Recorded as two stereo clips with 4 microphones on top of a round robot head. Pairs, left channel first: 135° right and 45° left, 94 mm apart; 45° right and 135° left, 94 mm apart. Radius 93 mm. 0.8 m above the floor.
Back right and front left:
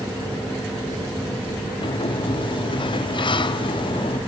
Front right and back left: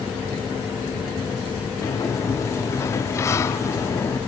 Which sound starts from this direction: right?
A sliding door, at 1.8 s.